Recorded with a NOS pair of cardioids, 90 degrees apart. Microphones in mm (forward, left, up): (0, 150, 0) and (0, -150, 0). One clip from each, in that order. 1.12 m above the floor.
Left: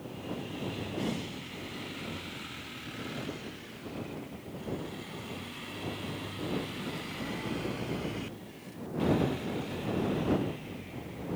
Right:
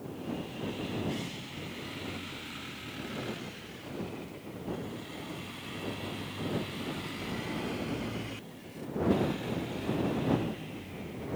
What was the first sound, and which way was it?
Only background noise.